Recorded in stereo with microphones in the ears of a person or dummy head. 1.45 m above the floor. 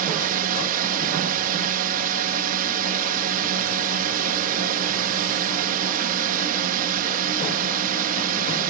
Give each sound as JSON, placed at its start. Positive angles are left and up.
{"t": 0.0, "sound": "a drone", "side_deg": -50}